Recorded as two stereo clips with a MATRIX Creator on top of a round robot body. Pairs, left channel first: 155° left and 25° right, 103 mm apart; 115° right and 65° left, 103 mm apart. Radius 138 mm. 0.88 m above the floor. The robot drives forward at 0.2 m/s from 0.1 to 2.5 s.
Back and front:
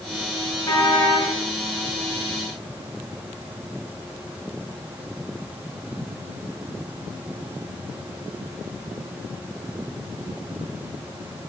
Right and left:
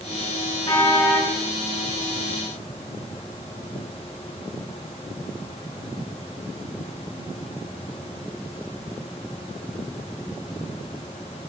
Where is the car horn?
150° right, 8 m.